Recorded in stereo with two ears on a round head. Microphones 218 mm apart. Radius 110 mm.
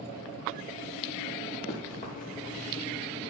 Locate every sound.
1.7 s running footsteps: 40° left (ahead or behind), 5.5 m; by 3.3 s 35° left (ahead or behind), 4.5 m